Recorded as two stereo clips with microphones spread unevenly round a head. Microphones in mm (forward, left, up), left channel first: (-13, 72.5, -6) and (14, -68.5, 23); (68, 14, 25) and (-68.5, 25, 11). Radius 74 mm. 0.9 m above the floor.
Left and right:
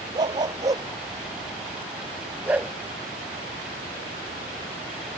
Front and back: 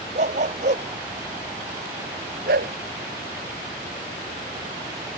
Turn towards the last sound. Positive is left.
turn(degrees=-160)